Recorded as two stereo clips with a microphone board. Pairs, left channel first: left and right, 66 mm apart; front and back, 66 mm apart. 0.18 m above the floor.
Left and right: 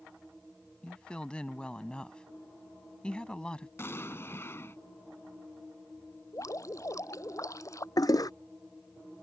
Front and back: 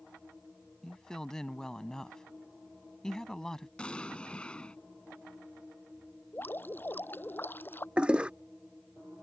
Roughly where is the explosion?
Ahead left.